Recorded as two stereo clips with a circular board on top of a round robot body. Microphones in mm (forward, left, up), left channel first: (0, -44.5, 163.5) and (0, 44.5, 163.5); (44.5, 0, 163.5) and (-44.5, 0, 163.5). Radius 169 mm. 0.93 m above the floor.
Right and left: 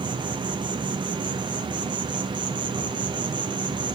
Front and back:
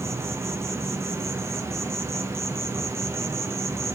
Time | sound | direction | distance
0.0 | an insect | 120° left | 0.9 m